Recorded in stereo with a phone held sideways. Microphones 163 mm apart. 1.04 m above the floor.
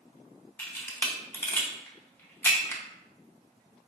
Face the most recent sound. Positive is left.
turn(degrees=15)  # may be behind; listen again after turning